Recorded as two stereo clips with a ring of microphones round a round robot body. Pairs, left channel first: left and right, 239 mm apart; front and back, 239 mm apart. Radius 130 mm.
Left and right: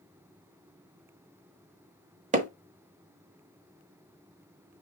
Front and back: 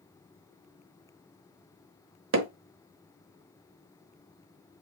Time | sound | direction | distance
2.3 | hammering | 150° right | 1.0 m